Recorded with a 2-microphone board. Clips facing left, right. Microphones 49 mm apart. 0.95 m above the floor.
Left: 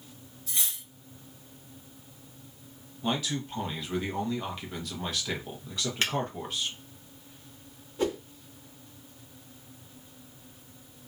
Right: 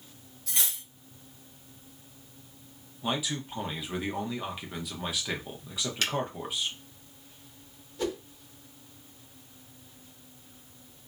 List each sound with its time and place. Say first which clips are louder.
0.5 s cutlery clinking: right 2 dB; 85° right, 0.9 m
3.0 s a man speaking: left 1 dB; 10° right (ahead or behind), 0.8 m
6.0 s a finger snap: left 1 dB; 30° left (ahead or behind), 1.0 m
8.0 s a whoosh: left 3 dB; 25° left (ahead or behind), 0.8 m